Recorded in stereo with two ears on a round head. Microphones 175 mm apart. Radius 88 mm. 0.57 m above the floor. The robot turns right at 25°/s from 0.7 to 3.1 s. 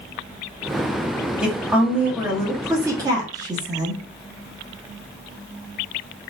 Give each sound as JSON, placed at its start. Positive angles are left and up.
{"t": 1.4, "sound": "a woman speaking", "side_deg": -5, "distance_m": 1.0}